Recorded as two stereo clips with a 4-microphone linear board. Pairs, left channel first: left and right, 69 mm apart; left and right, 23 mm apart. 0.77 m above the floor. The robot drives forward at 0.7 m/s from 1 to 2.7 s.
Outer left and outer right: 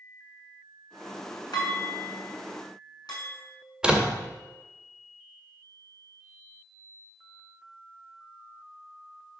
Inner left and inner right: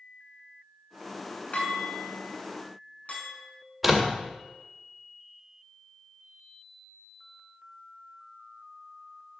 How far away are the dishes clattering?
About 5.5 m.